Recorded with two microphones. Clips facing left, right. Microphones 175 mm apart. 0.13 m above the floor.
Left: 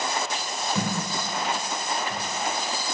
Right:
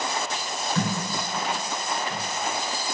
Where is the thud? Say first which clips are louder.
Right 2 dB; 15° left (ahead or behind), 4.5 m.